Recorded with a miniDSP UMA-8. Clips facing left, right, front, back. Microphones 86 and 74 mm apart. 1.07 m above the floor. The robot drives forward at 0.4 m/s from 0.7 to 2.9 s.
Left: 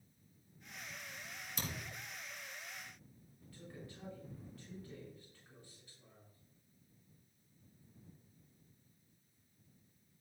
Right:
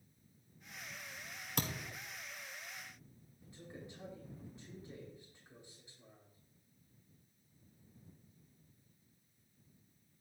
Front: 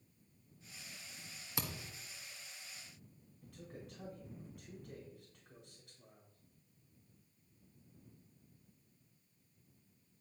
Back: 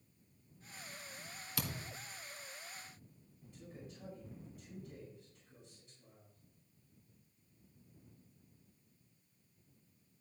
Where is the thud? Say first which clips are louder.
Right 5 dB, back 1 dB; 65° right, 1.7 m; by 2.0 s 70° right, 1.6 m.